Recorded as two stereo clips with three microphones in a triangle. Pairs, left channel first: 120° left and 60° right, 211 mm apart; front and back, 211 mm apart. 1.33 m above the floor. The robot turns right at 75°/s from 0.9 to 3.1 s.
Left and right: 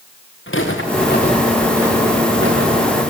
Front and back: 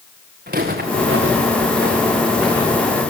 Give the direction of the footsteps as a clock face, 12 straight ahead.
7 o'clock.